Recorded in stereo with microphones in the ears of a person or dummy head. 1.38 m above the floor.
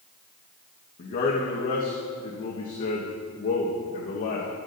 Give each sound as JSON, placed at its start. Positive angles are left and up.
{"t": 1.0, "sound": "a man speaking", "side_deg": 50, "distance_m": 1.2}